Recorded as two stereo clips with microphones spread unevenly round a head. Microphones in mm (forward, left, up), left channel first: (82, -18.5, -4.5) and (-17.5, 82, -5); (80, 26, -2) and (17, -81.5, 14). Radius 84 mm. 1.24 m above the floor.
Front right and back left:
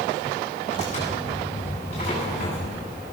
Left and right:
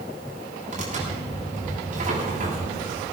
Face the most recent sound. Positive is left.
turn(degrees=-100)